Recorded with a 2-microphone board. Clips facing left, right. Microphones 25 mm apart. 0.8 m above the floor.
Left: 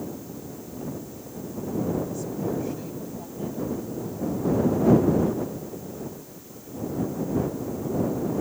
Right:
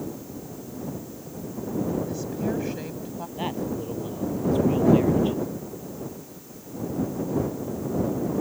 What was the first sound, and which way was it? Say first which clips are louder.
A woman speaking: right 1 dB; 45° right (ahead or behind).